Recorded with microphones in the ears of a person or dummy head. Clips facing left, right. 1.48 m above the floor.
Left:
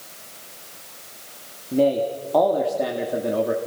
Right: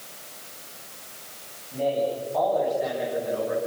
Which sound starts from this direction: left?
A man speaking, at 1.7 s.